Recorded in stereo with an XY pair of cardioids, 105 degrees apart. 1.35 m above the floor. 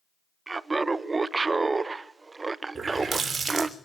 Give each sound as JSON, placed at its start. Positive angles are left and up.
{"t": 0.5, "sound": "laughter", "azimuth_deg": -25, "distance_m": 0.5}
{"t": 2.8, "sound": "a running tap", "azimuth_deg": -35, "distance_m": 3.0}